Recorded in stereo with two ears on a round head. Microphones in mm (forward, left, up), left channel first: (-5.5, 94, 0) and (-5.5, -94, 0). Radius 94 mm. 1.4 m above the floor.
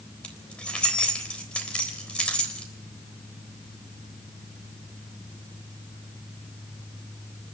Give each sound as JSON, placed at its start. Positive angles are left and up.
{"t": 0.2, "sound": "keys jangling", "side_deg": 5, "distance_m": 3.5}